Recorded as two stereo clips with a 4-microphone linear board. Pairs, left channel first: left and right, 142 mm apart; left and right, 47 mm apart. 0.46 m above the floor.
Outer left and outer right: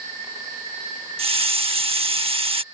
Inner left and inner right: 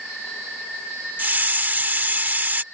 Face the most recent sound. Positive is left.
turn(degrees=-40)  # may be behind; listen again after turning